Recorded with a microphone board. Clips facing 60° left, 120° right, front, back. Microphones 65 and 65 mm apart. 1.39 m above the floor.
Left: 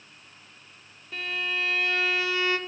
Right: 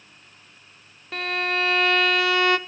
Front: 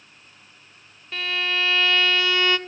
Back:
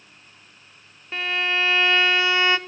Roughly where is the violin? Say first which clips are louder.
Right 5 dB, back 2 dB; behind right.